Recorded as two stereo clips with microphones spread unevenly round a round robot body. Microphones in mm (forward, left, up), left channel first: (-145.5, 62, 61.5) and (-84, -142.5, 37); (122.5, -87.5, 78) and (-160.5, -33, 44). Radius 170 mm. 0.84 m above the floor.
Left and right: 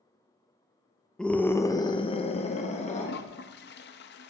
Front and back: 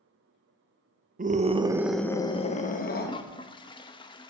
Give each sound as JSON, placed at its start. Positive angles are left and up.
{"t": 1.2, "sound": "a scream", "azimuth_deg": -160, "distance_m": 1.1}
{"t": 3.0, "sound": "a toilet flushing", "azimuth_deg": 65, "distance_m": 0.7}